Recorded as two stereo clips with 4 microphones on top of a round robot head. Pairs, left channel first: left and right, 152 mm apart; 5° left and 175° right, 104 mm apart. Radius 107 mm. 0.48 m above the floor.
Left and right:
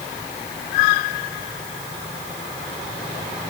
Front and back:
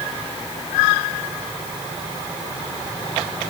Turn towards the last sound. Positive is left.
No sound to turn to.